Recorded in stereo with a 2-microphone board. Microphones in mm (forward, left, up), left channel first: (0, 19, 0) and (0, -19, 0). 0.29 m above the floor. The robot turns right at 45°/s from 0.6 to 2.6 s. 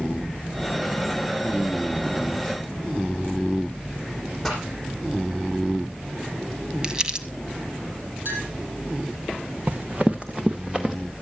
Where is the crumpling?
20° right (ahead or behind), 1.4 m.